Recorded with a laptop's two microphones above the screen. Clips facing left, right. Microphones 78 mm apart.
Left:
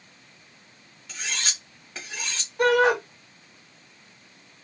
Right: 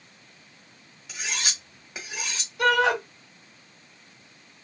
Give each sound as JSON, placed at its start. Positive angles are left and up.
{"t": 1.1, "sound": "cutlery clinking", "side_deg": -10, "distance_m": 0.9}
{"t": 2.6, "sound": "a shout", "side_deg": 45, "distance_m": 1.9}